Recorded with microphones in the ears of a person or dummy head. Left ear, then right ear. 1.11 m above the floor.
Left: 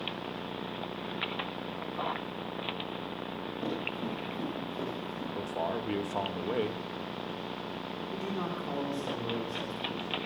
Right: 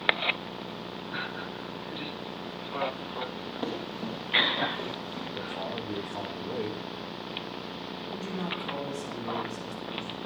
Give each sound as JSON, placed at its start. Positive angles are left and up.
{"t": 3.6, "sound": "running footsteps", "side_deg": -30, "distance_m": 6.5}
{"t": 5.3, "sound": "a man speaking", "side_deg": 50, "distance_m": 1.6}
{"t": 8.1, "sound": "a man speaking", "side_deg": 25, "distance_m": 3.5}